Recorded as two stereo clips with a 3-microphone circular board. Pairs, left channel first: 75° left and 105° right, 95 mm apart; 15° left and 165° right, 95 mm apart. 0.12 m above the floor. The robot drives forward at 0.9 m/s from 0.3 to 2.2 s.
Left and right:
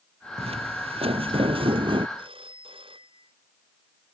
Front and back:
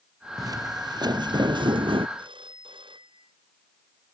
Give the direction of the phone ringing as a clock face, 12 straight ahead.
4 o'clock.